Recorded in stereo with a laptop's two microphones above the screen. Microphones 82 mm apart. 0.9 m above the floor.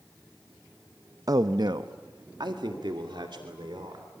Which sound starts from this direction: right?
A man speaking, at 1.3 s.